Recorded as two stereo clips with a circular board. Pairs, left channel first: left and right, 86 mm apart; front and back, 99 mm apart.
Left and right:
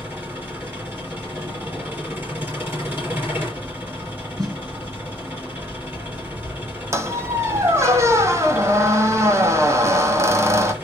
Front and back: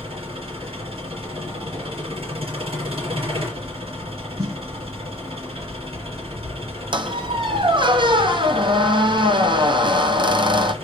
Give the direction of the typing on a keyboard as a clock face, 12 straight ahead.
I don't hear typing on a keyboard.